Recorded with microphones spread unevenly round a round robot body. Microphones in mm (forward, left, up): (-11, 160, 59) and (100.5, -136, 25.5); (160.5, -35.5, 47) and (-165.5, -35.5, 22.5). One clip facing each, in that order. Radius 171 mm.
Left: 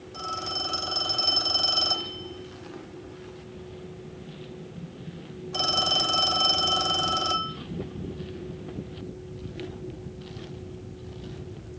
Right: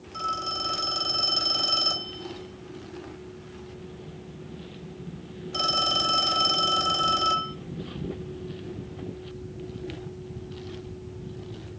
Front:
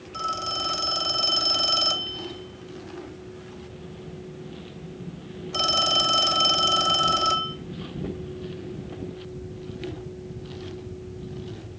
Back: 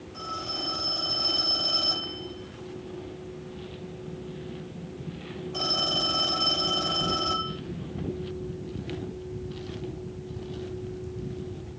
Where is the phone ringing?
30° left, 2.5 m.